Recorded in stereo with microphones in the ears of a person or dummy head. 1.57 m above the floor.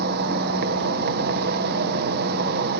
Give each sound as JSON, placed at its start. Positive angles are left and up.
{"t": 0.0, "sound": "an insect", "side_deg": -55, "distance_m": 1.6}